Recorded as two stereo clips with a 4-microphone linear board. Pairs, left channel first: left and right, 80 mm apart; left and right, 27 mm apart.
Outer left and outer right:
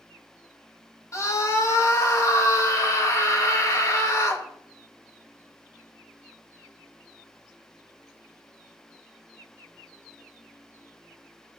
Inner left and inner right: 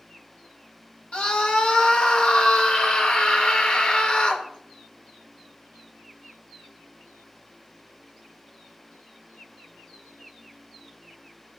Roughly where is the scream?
Left.